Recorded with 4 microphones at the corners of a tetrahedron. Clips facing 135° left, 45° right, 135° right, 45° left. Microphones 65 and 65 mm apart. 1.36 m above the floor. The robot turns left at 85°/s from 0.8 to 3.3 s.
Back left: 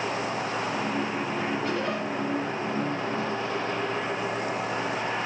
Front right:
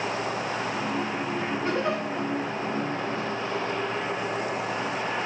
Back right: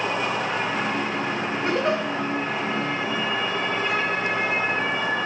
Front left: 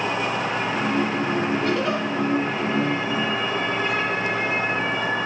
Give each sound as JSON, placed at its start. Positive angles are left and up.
{"t": 1.6, "sound": "a giggle", "azimuth_deg": -80, "distance_m": 0.6}